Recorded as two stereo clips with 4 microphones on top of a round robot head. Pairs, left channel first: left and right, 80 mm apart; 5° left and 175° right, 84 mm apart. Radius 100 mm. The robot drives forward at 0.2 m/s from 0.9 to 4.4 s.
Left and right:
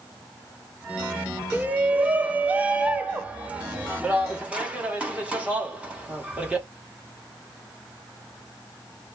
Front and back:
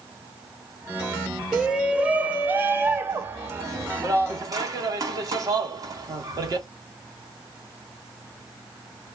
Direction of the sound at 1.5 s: 110° right.